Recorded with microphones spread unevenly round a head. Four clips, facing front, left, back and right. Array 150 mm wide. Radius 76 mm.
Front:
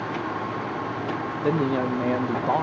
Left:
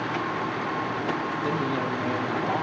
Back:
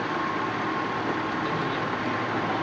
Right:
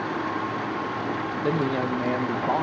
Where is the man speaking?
25° right, 0.7 m.